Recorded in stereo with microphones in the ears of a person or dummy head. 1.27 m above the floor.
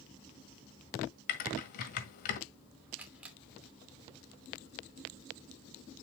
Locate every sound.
1.3 s typing on a keyboard: 45° left (ahead or behind), 1.7 m
3.0 s a camera shutter: 5° right (ahead or behind), 2.5 m